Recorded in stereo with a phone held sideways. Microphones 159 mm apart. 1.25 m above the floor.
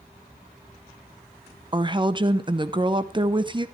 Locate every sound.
1.7 s a woman speaking: 30° right (ahead or behind), 0.7 m